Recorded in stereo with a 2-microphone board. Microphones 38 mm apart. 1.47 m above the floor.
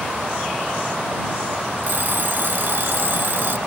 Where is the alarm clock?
60° right (ahead or behind).